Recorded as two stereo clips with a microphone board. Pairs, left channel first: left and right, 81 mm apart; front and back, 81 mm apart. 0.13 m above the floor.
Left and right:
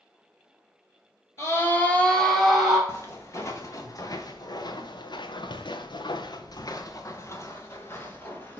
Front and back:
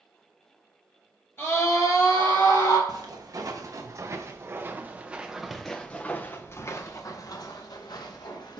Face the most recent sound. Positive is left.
turn(degrees=25)